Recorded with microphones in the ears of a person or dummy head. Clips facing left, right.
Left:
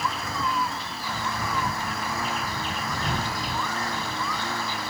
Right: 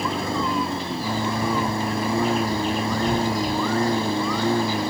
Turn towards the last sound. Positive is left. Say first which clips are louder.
# right 6 dB
turn(degrees=-30)  # may be behind; listen again after turning